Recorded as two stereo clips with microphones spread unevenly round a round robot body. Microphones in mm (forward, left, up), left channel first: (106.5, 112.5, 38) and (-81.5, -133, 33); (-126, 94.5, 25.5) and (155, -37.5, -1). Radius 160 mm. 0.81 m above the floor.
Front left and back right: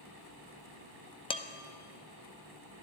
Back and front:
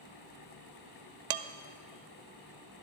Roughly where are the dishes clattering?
Ahead.